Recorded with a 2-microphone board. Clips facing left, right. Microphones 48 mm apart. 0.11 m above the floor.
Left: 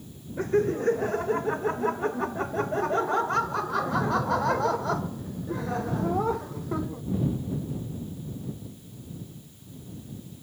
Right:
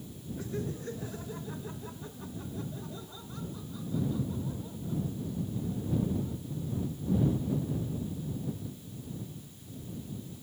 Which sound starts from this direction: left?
Laughter, at 0.4 s.